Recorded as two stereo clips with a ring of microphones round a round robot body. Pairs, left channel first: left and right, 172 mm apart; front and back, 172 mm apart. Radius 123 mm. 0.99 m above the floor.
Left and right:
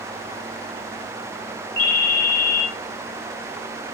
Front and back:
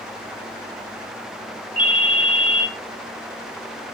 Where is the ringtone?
60° left, 2.0 m.